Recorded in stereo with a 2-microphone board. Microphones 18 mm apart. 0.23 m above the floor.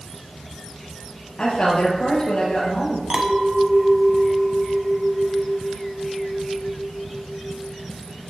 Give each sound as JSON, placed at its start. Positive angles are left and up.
{"t": 1.4, "sound": "a woman speaking", "side_deg": 70, "distance_m": 4.5}
{"t": 3.1, "sound": "a clink", "side_deg": -45, "distance_m": 1.2}